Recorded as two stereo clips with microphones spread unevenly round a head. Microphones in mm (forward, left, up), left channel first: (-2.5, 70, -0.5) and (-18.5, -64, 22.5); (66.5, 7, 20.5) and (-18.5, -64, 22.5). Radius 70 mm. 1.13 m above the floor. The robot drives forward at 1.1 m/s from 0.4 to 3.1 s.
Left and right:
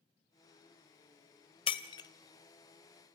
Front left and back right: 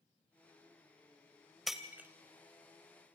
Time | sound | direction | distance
1.7 | breaking glass | 130° left | 1.1 m